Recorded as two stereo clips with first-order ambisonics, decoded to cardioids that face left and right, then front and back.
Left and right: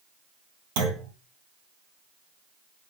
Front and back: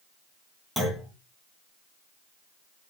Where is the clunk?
85° right, 3.5 m.